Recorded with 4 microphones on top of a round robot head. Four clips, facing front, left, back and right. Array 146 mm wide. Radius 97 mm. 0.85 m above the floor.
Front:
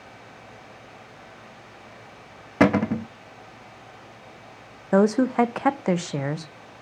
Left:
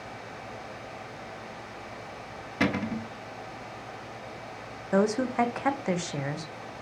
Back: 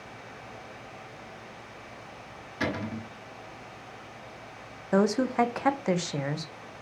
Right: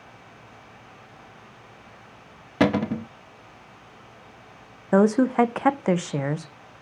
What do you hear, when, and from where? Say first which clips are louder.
2.6 s a cupboard door: right 7 dB, front 12 dB; 30° right, 0.7 m
4.9 s a woman speaking: right 6 dB, front 5 dB; 55° right, 0.9 m